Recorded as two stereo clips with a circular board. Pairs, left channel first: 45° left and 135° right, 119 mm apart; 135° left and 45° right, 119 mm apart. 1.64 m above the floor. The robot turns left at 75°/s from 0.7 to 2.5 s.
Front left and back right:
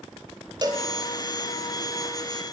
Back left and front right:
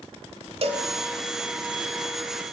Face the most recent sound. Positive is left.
turn(degrees=145)